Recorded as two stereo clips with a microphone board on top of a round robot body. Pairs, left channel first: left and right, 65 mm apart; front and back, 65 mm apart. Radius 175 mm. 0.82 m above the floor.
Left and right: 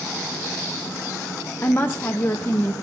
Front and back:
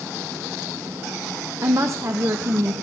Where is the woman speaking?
145° left, 0.8 m.